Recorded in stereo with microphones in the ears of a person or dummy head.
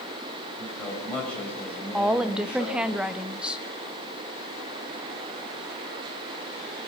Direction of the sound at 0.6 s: Centre (ahead or behind).